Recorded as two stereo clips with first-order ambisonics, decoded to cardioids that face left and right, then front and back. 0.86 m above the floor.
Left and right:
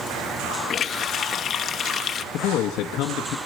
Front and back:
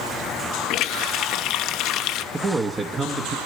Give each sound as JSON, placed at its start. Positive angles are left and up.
{"t": 0.7, "sound": "a running tap", "azimuth_deg": 30, "distance_m": 0.6}
{"t": 2.3, "sound": "a man speaking", "azimuth_deg": 110, "distance_m": 0.8}